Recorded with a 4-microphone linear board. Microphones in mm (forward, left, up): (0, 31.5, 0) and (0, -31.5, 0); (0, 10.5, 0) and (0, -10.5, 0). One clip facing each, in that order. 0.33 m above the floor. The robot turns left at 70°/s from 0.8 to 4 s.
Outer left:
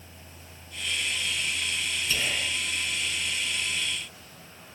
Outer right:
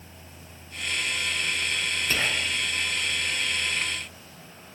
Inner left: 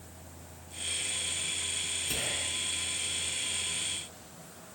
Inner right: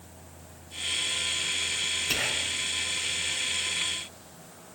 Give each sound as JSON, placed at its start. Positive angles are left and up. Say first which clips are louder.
{"t": 2.1, "sound": "whispering", "louder": "outer right 3 dB, inner right 5 dB", "azimuth_deg": -45, "distance_m": 4.0}